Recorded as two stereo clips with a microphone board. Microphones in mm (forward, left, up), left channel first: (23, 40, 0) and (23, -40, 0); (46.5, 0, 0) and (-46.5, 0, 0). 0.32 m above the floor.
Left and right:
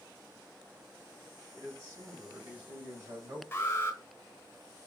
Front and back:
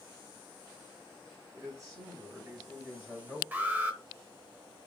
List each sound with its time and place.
1.5 s a man speaking: 135° right, 2.5 m; by 3.4 s 100° right, 1.6 m
3.5 s an alarm: 120° left, 0.9 m